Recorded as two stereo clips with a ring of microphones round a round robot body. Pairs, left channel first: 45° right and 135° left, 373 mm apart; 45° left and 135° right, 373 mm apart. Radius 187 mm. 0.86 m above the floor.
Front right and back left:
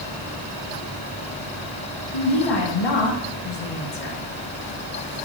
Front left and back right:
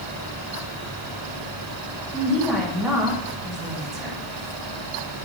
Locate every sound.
2.1 s a woman speaking: 45° right, 1.8 m